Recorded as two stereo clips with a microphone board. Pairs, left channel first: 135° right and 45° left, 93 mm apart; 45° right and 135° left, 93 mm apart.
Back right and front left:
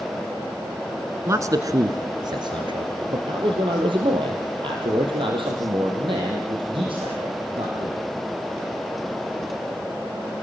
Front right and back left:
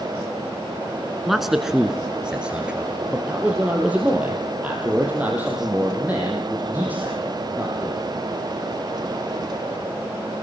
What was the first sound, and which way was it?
A man speaking, 50° left.